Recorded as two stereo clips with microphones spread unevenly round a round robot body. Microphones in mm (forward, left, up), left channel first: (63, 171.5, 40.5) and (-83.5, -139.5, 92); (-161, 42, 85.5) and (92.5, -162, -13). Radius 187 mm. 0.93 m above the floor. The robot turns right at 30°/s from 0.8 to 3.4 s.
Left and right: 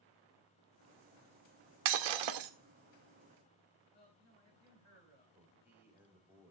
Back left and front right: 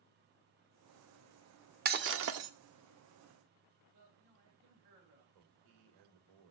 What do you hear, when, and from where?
1.9 s breaking glass: 105° right, 0.9 m; by 2.5 s 85° right, 0.9 m
3.9 s a man speaking: straight ahead, 10 m
5.3 s a man speaking: 30° right, 2 m